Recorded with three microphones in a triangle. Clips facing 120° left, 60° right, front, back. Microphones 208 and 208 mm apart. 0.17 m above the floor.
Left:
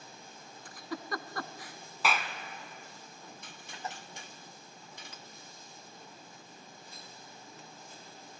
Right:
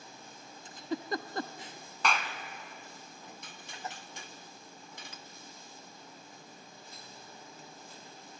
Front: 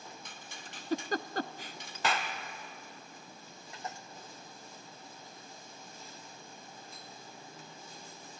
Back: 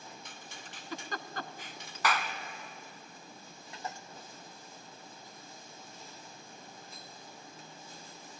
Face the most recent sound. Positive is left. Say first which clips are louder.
# even, back 1 dB
turn(degrees=40)